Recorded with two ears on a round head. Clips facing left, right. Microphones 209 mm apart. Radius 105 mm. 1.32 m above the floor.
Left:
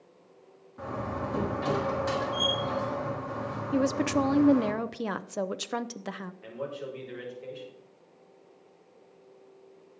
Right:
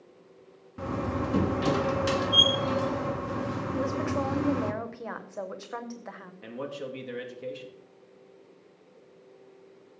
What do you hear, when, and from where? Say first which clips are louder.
0.8 s a door slam: right 4 dB; 40° right (ahead or behind), 1.1 m
3.7 s a woman speaking: left 5 dB; 50° left (ahead or behind), 0.6 m
6.4 s a man speaking: right 2 dB; 60° right (ahead or behind), 2.5 m